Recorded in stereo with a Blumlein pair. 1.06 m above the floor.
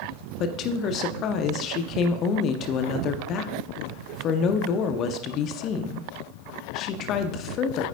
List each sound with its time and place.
0.4 s a woman speaking: 35° left, 0.6 m